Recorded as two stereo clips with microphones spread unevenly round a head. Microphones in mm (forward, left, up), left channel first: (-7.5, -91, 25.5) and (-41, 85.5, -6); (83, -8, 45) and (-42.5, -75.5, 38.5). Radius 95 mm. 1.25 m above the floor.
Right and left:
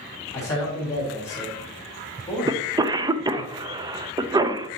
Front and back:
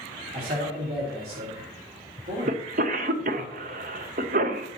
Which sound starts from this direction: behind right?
A man speaking, at 0.3 s.